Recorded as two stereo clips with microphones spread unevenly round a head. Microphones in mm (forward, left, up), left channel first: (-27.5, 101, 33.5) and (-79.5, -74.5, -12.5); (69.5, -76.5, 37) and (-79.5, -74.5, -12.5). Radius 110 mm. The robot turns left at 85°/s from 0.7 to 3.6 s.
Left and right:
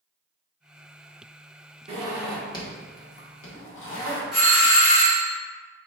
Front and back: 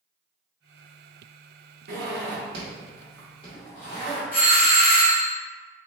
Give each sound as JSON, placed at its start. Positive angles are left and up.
{"t": 1.9, "sound": "a zipper", "azimuth_deg": -165, "distance_m": 1.2}
{"t": 4.3, "sound": "a doorbell", "azimuth_deg": -30, "distance_m": 1.5}